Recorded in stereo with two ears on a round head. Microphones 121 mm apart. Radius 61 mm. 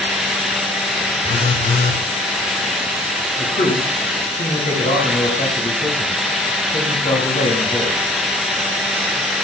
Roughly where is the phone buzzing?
Left.